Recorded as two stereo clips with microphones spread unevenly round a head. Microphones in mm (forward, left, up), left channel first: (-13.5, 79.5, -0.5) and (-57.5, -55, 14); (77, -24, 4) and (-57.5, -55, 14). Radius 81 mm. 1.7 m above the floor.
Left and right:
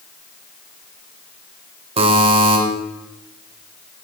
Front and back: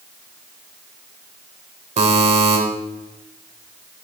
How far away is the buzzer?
About 2 m.